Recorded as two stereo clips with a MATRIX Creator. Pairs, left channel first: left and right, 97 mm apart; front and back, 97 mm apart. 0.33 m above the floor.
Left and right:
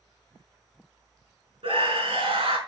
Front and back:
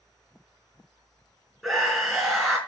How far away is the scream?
About 3.5 m.